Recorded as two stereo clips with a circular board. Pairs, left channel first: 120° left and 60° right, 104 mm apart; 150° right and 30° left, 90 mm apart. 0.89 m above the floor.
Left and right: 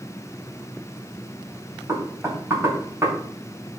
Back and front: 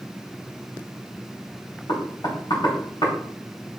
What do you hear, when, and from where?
1.9 s knocking: 120° right, 4 m